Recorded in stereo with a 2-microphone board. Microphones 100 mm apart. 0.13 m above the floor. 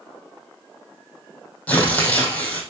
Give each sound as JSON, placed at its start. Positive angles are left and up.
{"t": 1.7, "sound": "tearing paper", "side_deg": 15, "distance_m": 3.5}